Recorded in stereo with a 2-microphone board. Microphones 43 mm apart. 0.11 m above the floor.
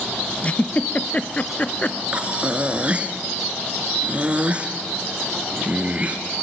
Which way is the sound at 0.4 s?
30° left (ahead or behind).